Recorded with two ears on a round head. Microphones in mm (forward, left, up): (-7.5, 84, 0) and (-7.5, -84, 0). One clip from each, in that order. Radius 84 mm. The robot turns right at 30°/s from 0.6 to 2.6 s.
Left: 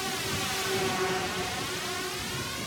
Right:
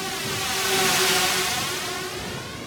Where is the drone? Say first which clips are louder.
Right 4 dB; centre (ahead or behind); by 2.7 s 25° left (ahead or behind).